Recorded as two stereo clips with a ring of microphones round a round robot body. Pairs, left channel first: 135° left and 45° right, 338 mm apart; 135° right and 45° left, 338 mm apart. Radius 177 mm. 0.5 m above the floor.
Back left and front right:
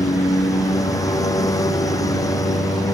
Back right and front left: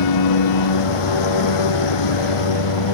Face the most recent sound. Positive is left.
turn(degrees=-145)